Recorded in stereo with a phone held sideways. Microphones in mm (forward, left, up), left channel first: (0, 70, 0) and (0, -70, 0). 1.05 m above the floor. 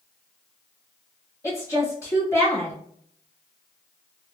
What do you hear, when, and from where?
1.4 s a woman speaking: 20° left (ahead or behind), 1.8 m